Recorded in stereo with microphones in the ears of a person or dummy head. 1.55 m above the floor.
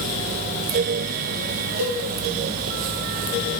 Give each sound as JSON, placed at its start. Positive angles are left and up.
{"t": 1.8, "sound": "a cowbell", "side_deg": -70, "distance_m": 1.5}